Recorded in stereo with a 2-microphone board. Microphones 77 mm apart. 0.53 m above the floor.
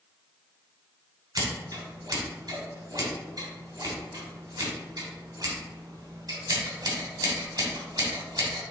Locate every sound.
1.4 s scissors: 60° right (ahead or behind), 2.5 m